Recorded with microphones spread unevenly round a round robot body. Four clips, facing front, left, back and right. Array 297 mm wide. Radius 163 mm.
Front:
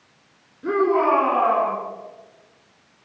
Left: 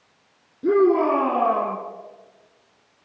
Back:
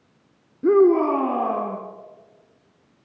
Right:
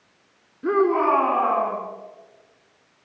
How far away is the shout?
About 4 m.